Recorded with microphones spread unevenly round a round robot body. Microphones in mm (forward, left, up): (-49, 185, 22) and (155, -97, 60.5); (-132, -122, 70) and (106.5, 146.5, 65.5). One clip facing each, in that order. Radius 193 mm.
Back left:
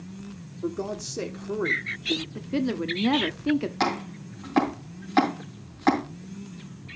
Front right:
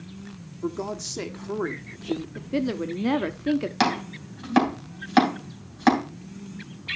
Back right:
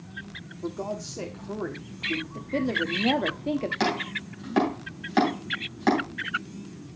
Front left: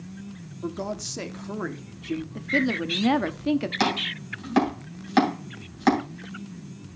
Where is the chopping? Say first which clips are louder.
Front right 2 dB, even; 20° right, 3 m.